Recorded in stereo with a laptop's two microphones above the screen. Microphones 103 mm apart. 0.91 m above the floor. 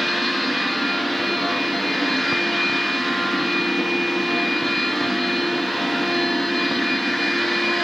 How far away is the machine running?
About 0.8 m.